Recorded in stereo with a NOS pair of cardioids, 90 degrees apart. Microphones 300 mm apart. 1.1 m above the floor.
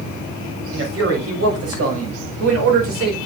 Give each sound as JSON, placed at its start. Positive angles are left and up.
{"t": 0.7, "sound": "a man speaking", "azimuth_deg": -50, "distance_m": 7.0}